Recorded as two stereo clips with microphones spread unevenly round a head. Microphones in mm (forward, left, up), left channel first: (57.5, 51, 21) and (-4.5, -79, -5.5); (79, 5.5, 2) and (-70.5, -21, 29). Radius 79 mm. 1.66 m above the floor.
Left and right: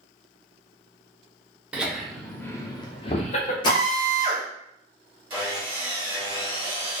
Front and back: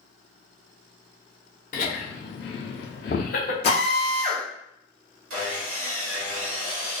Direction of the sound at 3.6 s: 55° left.